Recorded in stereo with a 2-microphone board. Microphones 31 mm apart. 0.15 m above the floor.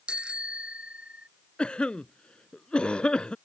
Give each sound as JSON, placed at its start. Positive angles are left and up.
{"t": 0.1, "sound": "a bicycle bell", "side_deg": -30}
{"t": 1.6, "sound": "a cough", "side_deg": 35}